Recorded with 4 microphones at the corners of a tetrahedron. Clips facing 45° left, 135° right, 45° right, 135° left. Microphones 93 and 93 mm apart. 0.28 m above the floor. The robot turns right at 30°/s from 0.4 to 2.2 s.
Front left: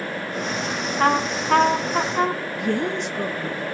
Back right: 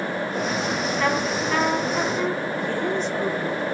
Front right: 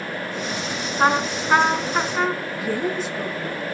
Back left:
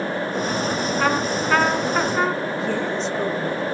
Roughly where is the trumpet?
Ahead.